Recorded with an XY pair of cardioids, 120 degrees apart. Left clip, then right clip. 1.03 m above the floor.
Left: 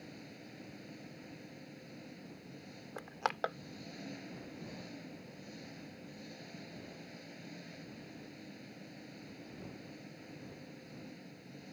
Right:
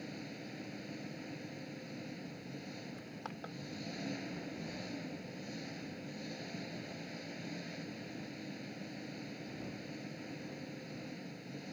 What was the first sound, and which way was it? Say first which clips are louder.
An engine running: right 5 dB; 30° right.